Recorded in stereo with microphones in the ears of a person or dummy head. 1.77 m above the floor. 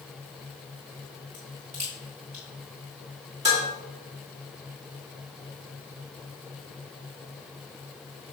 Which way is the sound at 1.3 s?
25° right (ahead or behind).